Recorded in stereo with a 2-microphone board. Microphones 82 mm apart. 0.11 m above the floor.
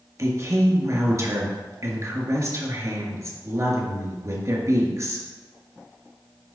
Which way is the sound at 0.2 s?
40° right (ahead or behind).